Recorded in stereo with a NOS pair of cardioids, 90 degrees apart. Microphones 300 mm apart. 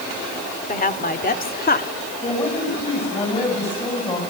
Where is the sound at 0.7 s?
30° left, 3 m.